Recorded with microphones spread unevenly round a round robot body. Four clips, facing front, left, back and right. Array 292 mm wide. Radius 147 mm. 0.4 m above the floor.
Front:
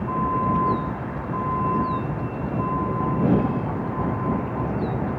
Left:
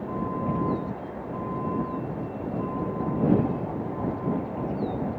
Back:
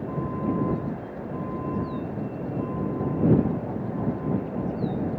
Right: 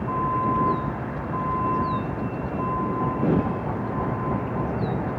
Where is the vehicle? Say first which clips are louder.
Right 5 dB, front 6 dB; 40° right; by 5.2 s 35° right.